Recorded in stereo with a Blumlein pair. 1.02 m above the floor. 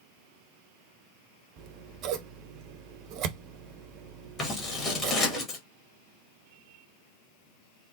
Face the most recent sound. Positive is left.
turn(degrees=20)